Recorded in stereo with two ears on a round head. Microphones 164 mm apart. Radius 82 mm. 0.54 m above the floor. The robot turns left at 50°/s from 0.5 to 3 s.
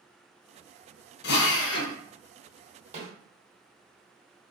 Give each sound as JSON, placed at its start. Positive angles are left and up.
{"t": 1.2, "sound": "a drill", "azimuth_deg": 115, "distance_m": 0.7}
{"t": 2.9, "sound": "a snare drum", "side_deg": -40, "distance_m": 1.6}